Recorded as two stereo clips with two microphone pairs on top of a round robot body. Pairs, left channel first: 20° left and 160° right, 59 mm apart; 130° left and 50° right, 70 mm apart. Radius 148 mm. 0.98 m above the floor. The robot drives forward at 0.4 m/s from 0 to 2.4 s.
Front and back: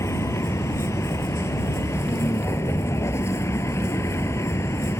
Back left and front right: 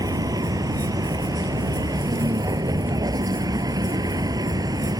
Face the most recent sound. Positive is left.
turn(degrees=-20)